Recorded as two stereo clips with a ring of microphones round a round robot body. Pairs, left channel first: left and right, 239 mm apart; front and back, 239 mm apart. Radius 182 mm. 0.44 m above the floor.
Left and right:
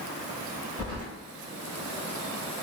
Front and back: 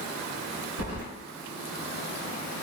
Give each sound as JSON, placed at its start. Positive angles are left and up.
{"t": 0.8, "sound": "keys jangling", "azimuth_deg": 170, "distance_m": 1.2}